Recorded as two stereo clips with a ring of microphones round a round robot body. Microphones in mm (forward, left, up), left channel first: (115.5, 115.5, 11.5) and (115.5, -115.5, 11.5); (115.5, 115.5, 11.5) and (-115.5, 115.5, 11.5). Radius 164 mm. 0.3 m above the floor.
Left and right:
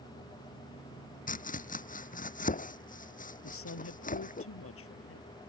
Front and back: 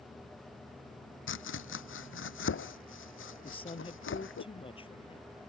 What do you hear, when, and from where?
1.3 s chopping: 35° left
3.4 s a woman speaking: 65° left